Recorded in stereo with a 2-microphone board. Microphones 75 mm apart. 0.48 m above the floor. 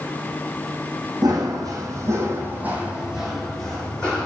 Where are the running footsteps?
65° right (ahead or behind), 1.2 m; by 4.3 s 15° left (ahead or behind), 1.5 m.